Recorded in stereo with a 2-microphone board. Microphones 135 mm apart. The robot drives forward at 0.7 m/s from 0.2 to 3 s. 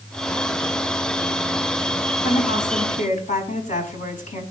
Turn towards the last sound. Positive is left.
turn(degrees=75)  # may be behind; listen again after turning